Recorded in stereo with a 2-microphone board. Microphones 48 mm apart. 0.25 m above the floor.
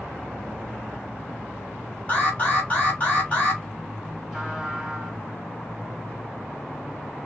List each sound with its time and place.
2.1 s an alarm: 25° left (ahead or behind), 1.9 m
4.3 s a trumpet: 10° right (ahead or behind), 1.1 m